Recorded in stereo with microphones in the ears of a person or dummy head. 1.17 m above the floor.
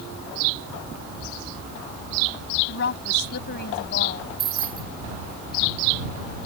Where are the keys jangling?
25° right (ahead or behind).